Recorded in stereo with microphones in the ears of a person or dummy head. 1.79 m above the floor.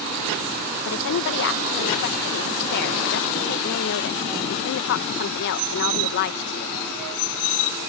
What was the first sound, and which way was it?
A woman speaking, 55° left (ahead or behind).